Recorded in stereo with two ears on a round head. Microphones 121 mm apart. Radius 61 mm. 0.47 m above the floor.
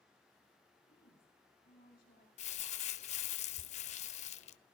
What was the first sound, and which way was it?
A woman speaking, 80° left.